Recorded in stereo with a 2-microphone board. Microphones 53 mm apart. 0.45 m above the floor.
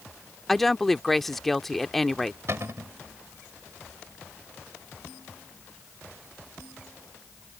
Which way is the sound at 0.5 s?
5° left (ahead or behind).